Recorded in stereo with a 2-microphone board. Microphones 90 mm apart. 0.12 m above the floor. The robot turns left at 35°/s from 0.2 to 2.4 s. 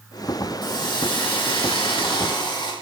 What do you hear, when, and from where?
0.6 s a hiss: 125° left, 5 m; by 2.7 s 65° left, 5 m